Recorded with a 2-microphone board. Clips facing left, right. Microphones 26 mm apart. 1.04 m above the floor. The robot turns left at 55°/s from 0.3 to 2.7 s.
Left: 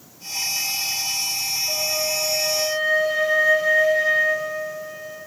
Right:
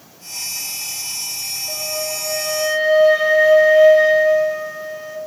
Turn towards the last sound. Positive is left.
turn(degrees=-55)